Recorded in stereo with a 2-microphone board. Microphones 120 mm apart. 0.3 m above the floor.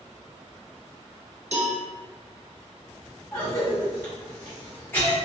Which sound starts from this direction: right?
A cowbell, at 1.5 s.